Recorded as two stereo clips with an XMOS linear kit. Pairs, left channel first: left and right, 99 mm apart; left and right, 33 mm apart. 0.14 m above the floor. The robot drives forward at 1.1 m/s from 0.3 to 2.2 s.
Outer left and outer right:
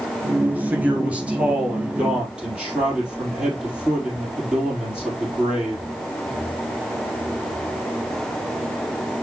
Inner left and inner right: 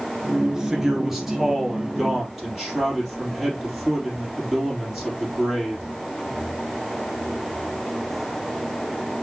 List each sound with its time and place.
0.5 s a man speaking: 15° right (ahead or behind), 1.6 m; by 5.8 s 10° right (ahead or behind), 3 m